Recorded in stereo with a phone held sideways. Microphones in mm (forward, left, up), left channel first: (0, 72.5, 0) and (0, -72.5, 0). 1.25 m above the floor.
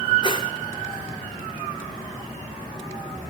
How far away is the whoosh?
About 1.0 m.